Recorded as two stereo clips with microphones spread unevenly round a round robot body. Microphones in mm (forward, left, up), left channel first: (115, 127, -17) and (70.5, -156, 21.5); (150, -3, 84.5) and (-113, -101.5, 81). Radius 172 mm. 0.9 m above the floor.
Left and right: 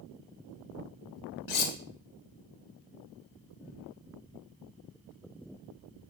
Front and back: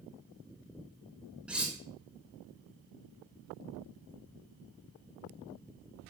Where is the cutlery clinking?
115° left, 0.6 m.